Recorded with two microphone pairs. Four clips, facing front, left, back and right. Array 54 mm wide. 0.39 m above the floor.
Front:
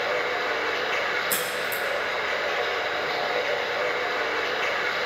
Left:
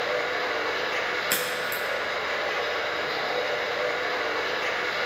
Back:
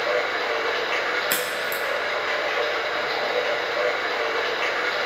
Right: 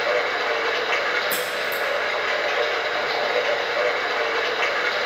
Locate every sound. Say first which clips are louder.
0.0 s running water: right 5 dB, back 2 dB; 110° right, 4.5 m
1.3 s a crack: right 3 dB, back 2 dB; 160° left, 3 m